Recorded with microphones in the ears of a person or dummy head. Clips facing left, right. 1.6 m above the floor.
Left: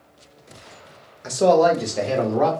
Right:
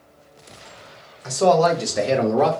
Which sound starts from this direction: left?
A man speaking, at 1.2 s.